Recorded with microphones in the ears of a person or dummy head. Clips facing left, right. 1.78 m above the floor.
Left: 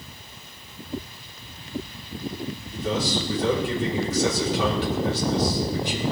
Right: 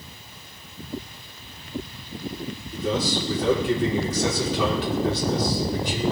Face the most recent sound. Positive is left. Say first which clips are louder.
# right 1 dB
turn(degrees=-75)  # may be behind; listen again after turning